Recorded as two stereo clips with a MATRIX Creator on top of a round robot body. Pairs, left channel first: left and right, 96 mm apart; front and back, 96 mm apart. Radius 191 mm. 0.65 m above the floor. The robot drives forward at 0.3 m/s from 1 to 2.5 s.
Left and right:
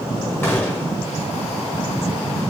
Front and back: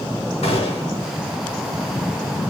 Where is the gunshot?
20° left, 0.9 m.